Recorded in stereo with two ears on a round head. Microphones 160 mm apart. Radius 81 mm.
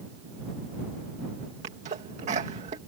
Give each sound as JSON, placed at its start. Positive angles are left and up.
{"t": 1.6, "sound": "a sneeze", "side_deg": -40}